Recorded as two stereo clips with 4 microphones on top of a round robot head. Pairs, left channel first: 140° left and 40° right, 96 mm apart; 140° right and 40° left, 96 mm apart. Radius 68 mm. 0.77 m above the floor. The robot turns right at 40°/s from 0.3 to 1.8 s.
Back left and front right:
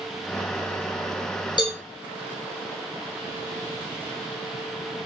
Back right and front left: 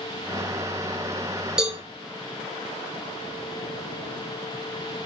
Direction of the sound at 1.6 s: 120° left.